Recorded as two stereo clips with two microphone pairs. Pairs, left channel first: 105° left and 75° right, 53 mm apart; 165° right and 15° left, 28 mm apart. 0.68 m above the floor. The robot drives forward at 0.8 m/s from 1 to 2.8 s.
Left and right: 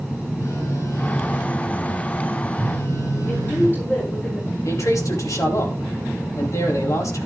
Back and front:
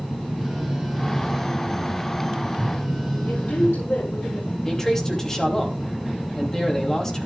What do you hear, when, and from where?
0.4 s a phone buzzing: 100° left, 7.5 m; by 3.8 s 110° left, 7.5 m
3.3 s a woman speaking: 160° left, 9 m
4.7 s a man speaking: 120° left, 5 m